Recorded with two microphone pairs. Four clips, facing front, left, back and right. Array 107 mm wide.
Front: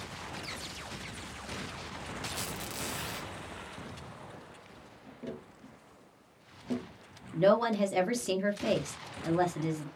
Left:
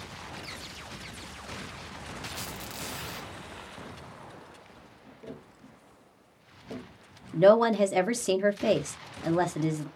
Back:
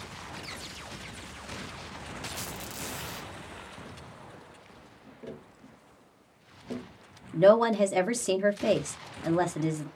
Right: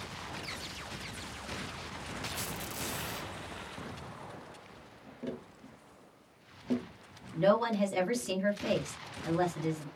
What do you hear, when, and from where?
2.3 s a squeak: 10° left, 0.8 m
5.2 s tapping: 85° right, 1.0 m
7.3 s a woman speaking: 125° left, 0.6 m